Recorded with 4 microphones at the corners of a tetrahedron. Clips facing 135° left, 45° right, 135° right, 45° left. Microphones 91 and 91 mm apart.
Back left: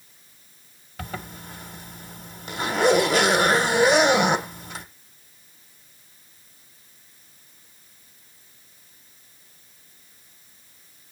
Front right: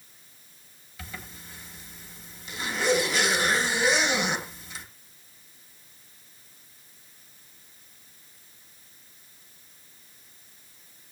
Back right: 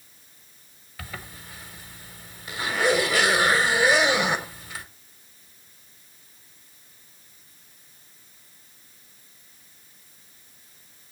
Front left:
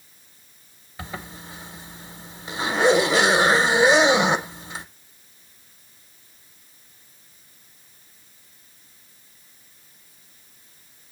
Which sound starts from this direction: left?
A zipper, at 1.0 s.